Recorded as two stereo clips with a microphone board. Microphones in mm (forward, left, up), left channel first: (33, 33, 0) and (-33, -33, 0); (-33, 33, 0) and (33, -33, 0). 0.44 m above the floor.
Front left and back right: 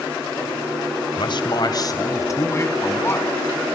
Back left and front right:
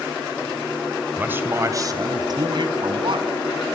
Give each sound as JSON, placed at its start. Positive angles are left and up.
{"t": 1.2, "sound": "a man speaking", "azimuth_deg": 25, "distance_m": 1.6}